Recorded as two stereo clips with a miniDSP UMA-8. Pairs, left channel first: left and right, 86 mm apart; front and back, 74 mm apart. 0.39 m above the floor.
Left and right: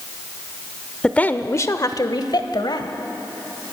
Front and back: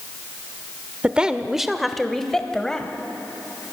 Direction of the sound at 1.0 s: 145° left.